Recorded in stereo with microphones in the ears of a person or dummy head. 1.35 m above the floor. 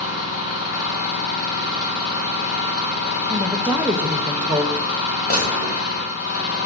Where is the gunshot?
50° left (ahead or behind), 1.6 m.